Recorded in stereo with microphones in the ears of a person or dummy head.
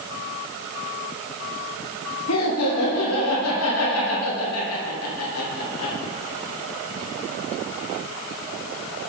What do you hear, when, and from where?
2.3 s laughter: 90° left, 1.8 m